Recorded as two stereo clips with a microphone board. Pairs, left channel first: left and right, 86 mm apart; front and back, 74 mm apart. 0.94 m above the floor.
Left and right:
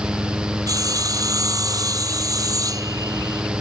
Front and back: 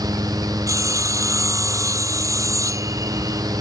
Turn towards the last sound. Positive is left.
turn(degrees=-135)